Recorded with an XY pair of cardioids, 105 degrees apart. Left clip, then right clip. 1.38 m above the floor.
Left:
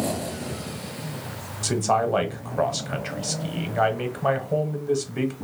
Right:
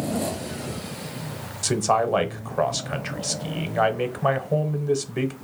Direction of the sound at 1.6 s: 20° right.